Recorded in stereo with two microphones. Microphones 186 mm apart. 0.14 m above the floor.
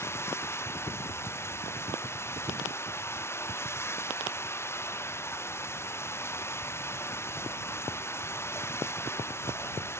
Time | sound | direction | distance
0.0 | running water | 15° left (ahead or behind) | ?